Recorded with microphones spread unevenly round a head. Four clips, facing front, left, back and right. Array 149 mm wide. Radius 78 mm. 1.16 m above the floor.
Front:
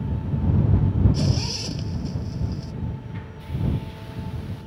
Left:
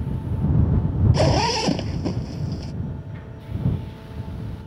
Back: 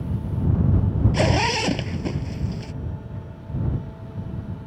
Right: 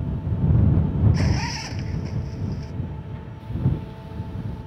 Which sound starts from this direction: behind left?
A zipper, at 1.1 s.